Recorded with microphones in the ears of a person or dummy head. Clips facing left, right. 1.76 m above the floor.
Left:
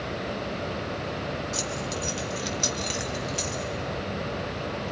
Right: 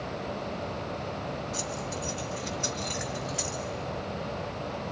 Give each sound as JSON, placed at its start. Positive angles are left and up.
{"t": 1.5, "sound": "keys jangling", "side_deg": 70, "distance_m": 2.5}